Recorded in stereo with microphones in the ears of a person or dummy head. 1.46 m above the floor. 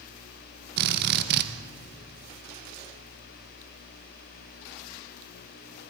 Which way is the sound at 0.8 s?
55° right (ahead or behind).